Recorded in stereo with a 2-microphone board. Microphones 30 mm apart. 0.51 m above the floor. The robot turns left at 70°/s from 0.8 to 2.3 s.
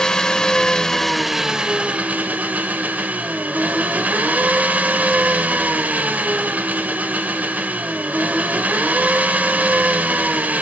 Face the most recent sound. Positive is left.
turn(degrees=-75)